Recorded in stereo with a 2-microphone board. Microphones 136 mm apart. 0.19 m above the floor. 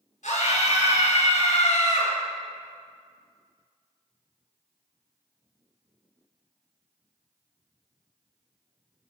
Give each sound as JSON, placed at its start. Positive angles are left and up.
{"t": 0.2, "sound": "a scream", "side_deg": 65, "distance_m": 2.5}